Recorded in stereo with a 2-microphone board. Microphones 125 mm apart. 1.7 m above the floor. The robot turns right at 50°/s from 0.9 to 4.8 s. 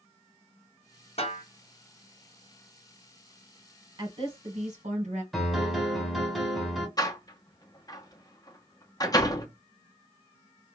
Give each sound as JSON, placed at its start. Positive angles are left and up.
{"t": 1.2, "sound": "a snare drum", "side_deg": 55, "distance_m": 1.7}
{"t": 4.0, "sound": "a woman speaking", "azimuth_deg": -140, "distance_m": 1.7}
{"t": 5.3, "sound": "a piano", "side_deg": 0, "distance_m": 1.0}
{"t": 7.0, "sound": "a door slam", "side_deg": 30, "distance_m": 0.8}